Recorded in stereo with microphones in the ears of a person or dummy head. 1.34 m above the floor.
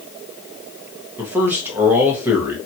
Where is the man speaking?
10° right (ahead or behind), 1.1 m.